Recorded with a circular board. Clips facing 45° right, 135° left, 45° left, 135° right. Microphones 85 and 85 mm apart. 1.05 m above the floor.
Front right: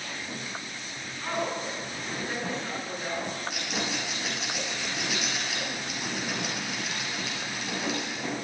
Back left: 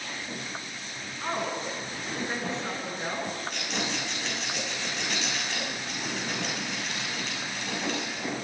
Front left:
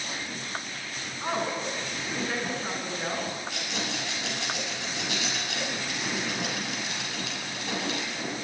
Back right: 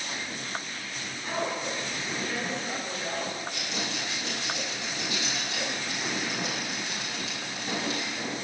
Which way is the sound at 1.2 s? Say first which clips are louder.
Even, front left 2 dB; 70° left.